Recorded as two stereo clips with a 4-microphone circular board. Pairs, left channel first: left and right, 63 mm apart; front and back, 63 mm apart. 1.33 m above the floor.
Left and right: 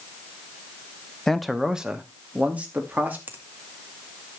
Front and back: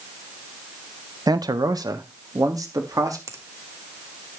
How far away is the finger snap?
About 1.8 m.